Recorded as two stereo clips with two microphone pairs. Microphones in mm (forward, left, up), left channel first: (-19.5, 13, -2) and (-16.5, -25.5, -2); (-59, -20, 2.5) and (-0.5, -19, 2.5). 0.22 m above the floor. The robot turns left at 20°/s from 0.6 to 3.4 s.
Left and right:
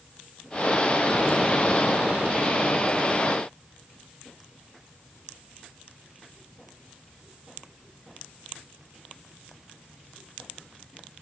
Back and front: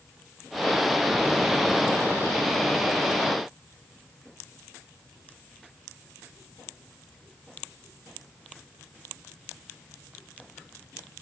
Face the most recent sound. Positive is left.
No sound to turn to.